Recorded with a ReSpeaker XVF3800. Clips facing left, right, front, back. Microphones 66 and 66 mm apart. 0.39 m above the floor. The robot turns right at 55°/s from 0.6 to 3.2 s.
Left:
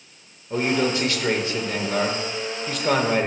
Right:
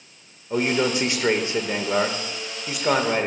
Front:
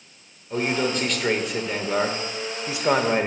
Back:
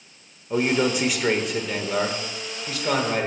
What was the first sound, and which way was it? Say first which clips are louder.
A man speaking: even, back 2 dB; 140° right.